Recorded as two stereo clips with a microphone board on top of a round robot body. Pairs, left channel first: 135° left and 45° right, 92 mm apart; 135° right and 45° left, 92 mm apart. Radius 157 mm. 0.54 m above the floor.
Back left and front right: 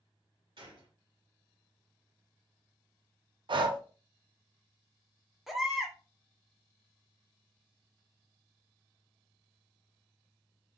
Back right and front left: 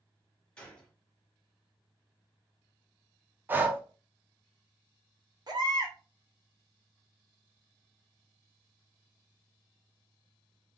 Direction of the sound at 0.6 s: 60° right.